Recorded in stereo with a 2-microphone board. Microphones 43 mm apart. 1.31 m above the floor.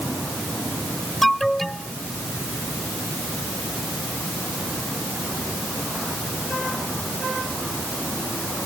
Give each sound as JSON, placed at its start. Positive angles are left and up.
{"t": 1.2, "sound": "an alarm", "side_deg": 5}